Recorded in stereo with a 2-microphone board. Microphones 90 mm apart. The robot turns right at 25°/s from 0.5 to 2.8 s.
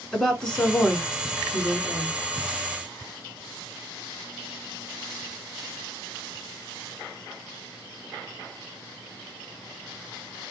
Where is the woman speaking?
170° left, 1.9 m; by 2.2 s 150° right, 1.9 m.